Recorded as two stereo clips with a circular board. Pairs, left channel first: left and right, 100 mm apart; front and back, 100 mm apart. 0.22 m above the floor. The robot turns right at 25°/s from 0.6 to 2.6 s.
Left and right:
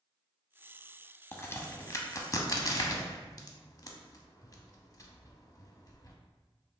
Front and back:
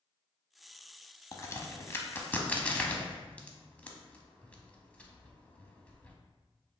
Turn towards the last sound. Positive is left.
turn(degrees=70)